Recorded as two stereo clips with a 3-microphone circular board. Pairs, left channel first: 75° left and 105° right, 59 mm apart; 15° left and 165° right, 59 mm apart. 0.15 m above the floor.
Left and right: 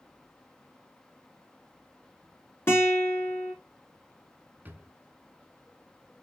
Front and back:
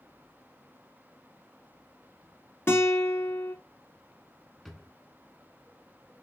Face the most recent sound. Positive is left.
turn(degrees=-75)